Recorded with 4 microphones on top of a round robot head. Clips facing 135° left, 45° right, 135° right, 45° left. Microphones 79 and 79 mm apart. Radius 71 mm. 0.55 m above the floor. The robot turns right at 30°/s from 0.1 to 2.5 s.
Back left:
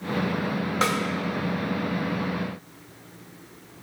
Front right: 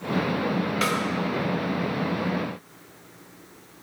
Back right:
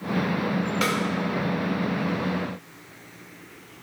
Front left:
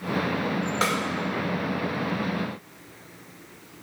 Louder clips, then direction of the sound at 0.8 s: Back left 3 dB, front left 1 dB; 85° left.